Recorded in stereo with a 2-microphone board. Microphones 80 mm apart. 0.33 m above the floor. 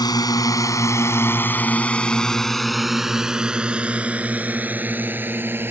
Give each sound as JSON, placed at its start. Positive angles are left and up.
{"t": 0.0, "sound": "a drone", "side_deg": 55}